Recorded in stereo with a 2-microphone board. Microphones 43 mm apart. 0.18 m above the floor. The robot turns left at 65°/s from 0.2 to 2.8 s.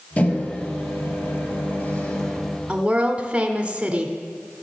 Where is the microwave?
150° left, 2.5 m; by 2.6 s 5° right, 2.5 m.